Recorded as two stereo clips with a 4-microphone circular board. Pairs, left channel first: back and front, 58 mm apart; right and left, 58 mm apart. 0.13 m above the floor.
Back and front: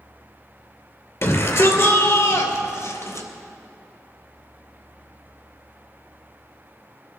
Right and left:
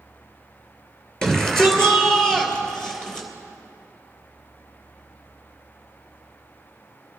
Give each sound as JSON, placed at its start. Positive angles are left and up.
{"t": 1.2, "sound": "a shout", "azimuth_deg": -165, "distance_m": 2.5}